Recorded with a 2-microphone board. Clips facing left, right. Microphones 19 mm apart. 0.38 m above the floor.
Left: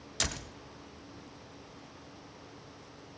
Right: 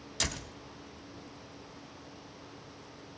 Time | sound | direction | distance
0.2 | a door slam | 10° left (ahead or behind) | 1.4 m